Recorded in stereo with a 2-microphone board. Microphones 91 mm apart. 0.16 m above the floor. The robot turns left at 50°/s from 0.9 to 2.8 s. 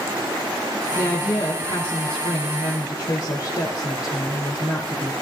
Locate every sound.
0.9 s a woman speaking: 150° left, 2.5 m; by 5.1 s 55° left, 2.5 m